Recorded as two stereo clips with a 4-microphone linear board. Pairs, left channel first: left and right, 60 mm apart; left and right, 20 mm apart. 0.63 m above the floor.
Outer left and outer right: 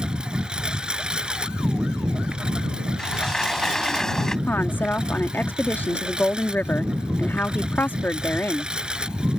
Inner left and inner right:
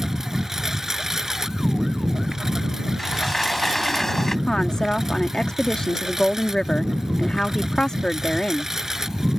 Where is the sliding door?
10° left (ahead or behind).